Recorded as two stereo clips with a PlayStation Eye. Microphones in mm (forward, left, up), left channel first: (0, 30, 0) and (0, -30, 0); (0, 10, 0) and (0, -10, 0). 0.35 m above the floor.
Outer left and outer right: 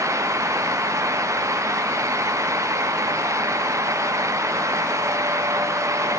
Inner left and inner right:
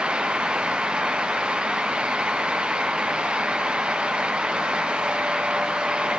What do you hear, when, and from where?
Only background noise.